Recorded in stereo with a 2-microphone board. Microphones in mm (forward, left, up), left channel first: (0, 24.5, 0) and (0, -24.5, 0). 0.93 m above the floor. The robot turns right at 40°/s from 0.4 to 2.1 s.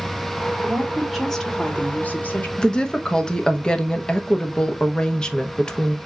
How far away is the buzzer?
No buzzer in this recording.